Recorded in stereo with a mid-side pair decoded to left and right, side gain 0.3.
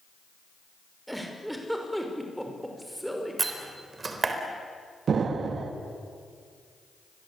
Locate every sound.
1.1 s a giggle: 5° right, 5.5 m
3.4 s a door slam: 45° right, 4 m
5.1 s an explosion: 70° right, 1.9 m